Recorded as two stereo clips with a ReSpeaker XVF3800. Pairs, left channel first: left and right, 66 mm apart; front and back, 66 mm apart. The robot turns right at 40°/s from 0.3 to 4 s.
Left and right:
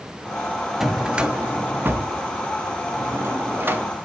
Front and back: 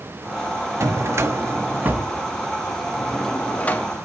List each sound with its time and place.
0.8 s a drawer: 170° right, 0.8 m; by 3.8 s 50° right, 0.8 m